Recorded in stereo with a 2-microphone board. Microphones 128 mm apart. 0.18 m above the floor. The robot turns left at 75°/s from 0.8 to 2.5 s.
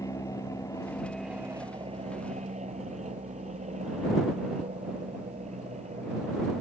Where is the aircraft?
30° left; by 6.6 s 100° right.